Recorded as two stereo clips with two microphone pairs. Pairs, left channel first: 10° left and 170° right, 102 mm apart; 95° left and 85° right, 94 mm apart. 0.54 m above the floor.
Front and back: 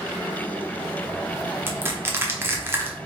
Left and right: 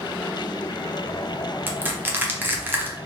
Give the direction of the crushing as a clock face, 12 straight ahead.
4 o'clock.